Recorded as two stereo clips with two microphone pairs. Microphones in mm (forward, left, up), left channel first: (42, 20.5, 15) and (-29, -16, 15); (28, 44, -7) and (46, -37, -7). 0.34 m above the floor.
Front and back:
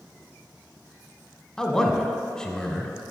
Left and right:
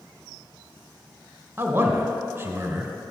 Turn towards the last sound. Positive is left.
turn(degrees=-45)